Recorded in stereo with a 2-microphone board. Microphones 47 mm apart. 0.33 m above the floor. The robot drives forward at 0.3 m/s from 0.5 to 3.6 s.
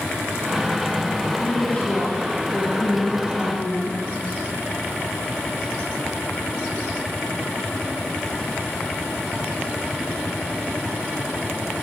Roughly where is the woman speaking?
Left.